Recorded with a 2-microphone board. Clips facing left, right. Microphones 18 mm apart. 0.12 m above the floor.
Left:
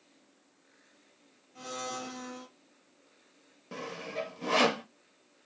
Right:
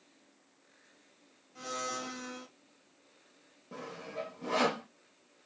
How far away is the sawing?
About 0.5 m.